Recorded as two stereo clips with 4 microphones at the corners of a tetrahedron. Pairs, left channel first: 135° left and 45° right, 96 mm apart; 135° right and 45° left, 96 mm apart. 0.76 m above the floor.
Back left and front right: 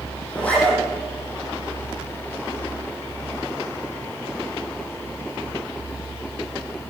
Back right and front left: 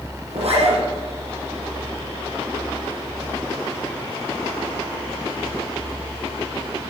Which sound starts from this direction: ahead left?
A zipper, at 0.3 s.